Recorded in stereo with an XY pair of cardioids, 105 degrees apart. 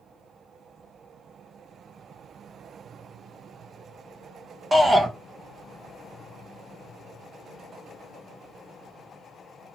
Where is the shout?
15° right, 0.8 m.